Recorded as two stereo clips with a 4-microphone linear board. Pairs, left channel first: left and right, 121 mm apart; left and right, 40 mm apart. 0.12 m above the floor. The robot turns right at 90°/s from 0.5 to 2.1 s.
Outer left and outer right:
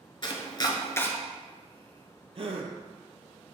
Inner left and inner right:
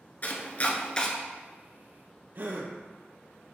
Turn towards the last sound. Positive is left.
turn(degrees=-55)  # may be behind; listen again after turning